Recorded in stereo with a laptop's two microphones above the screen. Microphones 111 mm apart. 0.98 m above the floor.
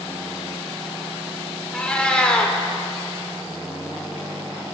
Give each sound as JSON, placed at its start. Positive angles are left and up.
{"t": 1.7, "sound": "a cat meowing", "side_deg": 10, "distance_m": 0.8}